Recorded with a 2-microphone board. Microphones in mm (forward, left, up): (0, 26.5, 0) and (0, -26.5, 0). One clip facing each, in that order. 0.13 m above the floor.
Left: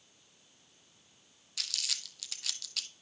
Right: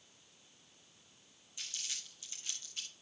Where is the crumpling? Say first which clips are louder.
Left 6 dB; 80° left, 0.7 m.